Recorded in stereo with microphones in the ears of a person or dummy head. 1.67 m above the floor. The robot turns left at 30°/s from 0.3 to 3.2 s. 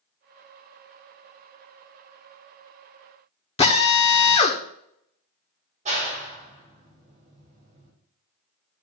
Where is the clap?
35° right (ahead or behind), 2.5 m.